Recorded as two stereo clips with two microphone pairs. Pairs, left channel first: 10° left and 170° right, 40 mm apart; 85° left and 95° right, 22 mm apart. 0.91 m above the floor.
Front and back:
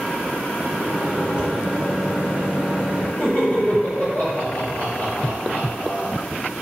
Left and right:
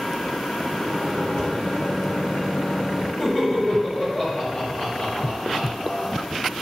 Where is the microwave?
115° left, 1.1 m.